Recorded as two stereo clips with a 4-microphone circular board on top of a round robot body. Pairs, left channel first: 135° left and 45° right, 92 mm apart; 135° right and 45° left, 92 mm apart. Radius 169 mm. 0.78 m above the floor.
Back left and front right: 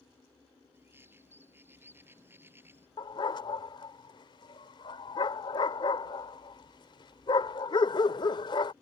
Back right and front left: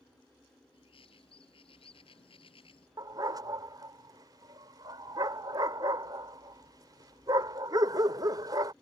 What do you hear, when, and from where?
0.7 s a bird: 115° right
3.0 s a dog barking: 95° left